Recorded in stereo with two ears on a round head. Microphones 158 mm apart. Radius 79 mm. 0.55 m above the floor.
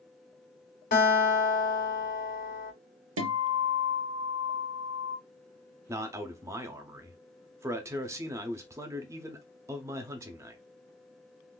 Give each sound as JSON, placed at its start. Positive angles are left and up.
{"t": 0.9, "sound": "a guitar", "side_deg": 55, "distance_m": 2.0}
{"t": 3.2, "sound": "a guitar", "side_deg": -80, "distance_m": 0.7}
{"t": 5.9, "sound": "a man speaking", "side_deg": -15, "distance_m": 0.6}